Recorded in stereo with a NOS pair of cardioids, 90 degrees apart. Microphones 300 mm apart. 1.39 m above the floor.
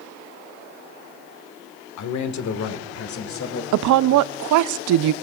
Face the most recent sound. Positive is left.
turn(degrees=-70)